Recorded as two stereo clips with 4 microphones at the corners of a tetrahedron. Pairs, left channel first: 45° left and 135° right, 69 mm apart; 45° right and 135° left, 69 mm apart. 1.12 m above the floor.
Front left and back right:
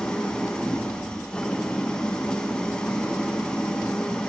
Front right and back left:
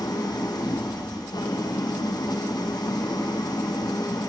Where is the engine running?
30° right, 0.8 m.